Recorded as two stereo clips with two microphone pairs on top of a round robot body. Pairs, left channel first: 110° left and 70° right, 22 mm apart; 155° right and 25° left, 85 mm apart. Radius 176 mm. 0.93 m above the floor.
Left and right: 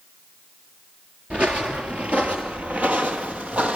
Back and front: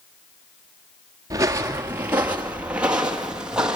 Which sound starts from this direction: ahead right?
Footsteps, at 1.3 s.